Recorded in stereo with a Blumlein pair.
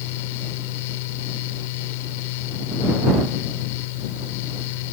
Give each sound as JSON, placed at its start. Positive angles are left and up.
{"t": 0.0, "sound": "a fan", "azimuth_deg": 50}